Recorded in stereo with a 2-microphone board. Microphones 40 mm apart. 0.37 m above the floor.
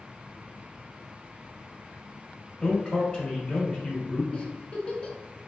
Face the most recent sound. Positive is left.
turn(degrees=25)  # may be behind; listen again after turning